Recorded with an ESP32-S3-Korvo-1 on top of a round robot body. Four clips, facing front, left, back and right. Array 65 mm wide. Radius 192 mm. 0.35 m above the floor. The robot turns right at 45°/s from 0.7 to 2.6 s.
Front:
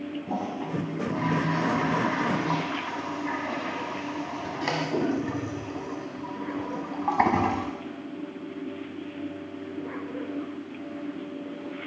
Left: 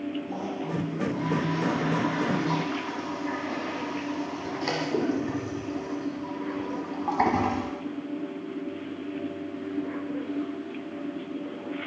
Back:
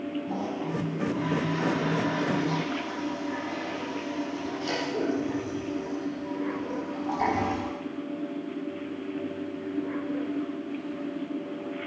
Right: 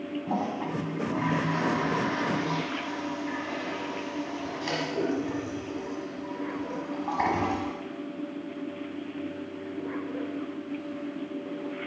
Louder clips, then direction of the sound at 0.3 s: Right 2 dB, even; 70° right.